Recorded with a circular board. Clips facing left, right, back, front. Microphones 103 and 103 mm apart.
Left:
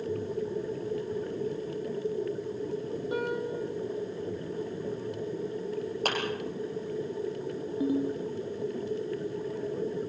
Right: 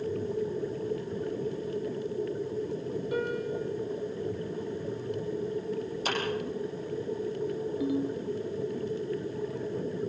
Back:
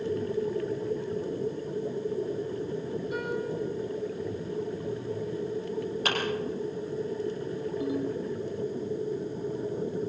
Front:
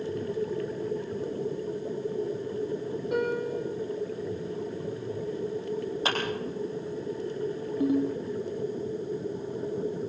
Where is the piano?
25° left, 4 m.